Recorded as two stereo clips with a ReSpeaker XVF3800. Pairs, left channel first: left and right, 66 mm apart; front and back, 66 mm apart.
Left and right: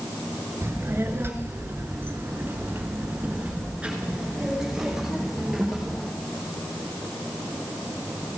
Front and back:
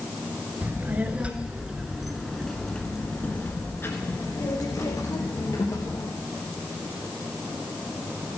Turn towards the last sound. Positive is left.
turn(degrees=0)